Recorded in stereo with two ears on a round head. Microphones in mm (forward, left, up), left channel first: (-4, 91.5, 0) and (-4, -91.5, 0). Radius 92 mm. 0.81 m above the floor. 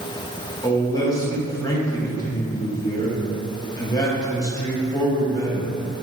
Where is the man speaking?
15° left (ahead or behind), 0.6 m.